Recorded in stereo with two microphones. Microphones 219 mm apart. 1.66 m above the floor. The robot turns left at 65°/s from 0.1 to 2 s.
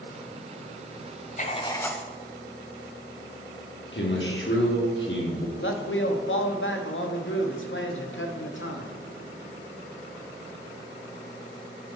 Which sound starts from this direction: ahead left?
Writing, at 1.4 s.